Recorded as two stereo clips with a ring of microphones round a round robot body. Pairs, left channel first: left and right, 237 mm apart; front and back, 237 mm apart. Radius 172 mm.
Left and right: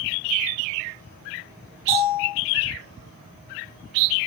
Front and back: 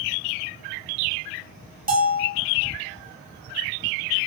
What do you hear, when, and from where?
1.9 s a bell: 130° left, 5.5 m